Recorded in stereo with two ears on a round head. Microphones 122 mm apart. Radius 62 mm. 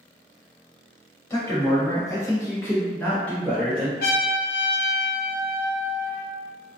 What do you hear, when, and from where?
1.3 s a man speaking: 20° left (ahead or behind), 1.1 m; by 3.9 s centre (ahead or behind), 1.0 m
4.0 s a trumpet: 65° left (ahead or behind), 0.7 m